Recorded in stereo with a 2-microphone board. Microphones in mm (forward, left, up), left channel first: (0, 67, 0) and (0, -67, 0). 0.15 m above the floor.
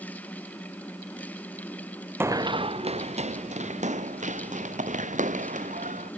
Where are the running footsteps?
15° right (ahead or behind); by 6.1 s 70° right (ahead or behind).